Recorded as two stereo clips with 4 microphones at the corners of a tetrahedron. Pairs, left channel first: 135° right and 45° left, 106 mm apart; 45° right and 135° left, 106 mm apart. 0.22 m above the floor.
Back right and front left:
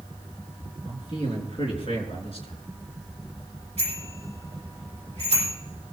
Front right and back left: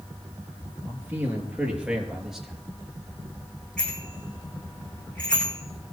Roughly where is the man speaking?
Behind.